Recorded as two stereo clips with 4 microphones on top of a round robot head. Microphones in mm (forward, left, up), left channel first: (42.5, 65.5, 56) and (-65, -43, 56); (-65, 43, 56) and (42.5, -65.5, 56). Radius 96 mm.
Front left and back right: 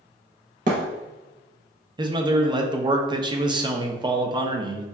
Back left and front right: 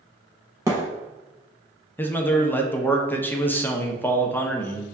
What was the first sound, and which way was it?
A thud, 110° right.